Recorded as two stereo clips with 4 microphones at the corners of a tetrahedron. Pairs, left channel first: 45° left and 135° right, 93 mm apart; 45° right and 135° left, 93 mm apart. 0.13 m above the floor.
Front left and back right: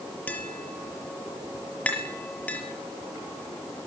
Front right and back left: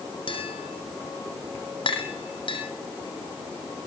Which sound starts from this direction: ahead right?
Tapping, at 0.3 s.